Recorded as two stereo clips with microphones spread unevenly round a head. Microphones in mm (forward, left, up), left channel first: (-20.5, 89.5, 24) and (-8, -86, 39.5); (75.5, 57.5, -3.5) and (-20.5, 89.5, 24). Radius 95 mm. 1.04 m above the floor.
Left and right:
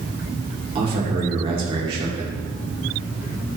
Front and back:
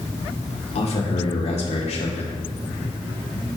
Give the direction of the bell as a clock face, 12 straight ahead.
I don't hear a bell.